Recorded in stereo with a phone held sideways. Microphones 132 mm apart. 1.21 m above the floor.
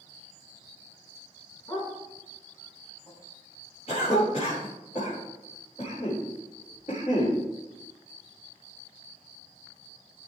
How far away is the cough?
About 4.5 m.